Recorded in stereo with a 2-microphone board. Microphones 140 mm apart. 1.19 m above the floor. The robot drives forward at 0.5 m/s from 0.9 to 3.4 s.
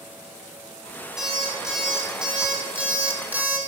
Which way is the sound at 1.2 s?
5° right (ahead or behind).